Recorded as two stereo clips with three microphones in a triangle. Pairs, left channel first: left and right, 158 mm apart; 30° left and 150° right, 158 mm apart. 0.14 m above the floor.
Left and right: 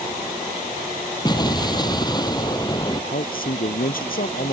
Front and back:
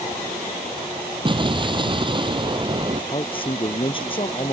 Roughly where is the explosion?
Behind left.